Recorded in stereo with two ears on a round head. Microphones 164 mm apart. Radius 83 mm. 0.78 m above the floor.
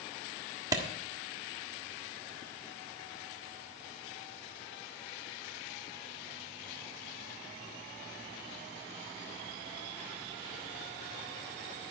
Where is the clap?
20° right (ahead or behind), 1.5 m.